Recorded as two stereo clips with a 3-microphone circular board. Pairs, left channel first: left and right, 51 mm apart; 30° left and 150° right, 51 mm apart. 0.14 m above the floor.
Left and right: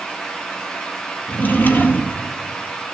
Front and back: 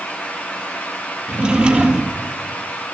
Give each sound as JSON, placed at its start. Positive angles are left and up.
{"t": 1.3, "sound": "a drawer", "azimuth_deg": 140, "distance_m": 2.0}